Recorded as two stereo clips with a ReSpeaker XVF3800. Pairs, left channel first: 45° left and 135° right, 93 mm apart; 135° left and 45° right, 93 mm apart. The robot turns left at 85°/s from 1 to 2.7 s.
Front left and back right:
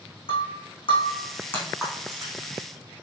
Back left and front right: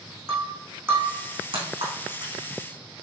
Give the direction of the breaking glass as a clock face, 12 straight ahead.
11 o'clock.